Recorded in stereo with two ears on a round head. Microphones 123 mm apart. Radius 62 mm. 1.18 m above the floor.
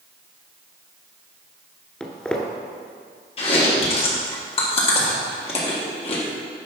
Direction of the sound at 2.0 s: 10° left (ahead or behind).